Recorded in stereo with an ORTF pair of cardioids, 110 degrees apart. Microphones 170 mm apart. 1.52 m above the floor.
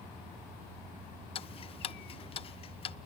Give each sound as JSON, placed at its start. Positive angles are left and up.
{"t": 1.4, "sound": "ticking", "azimuth_deg": 35, "distance_m": 0.6}